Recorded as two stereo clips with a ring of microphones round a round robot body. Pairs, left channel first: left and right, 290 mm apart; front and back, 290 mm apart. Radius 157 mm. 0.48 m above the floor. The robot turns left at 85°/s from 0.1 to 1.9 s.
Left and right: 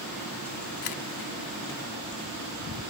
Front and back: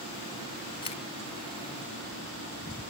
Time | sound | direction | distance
0.8 | a camera shutter | 75° left | 0.9 m